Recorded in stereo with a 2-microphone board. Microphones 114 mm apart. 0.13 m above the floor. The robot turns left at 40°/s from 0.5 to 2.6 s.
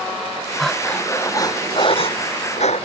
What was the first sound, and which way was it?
Breathing, straight behind.